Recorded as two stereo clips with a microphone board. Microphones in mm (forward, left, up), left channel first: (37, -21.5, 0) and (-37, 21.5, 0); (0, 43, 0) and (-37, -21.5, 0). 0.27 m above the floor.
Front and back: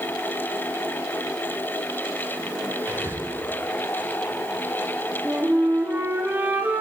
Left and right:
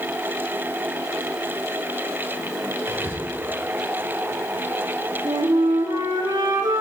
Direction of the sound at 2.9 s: 160° right.